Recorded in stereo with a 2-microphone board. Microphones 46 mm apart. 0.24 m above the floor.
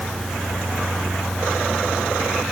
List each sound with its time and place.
Only background noise.